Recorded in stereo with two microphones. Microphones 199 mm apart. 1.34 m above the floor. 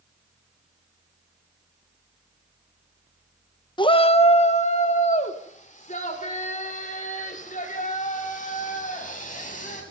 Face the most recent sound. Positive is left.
turn(degrees=40)  # may be behind; listen again after turning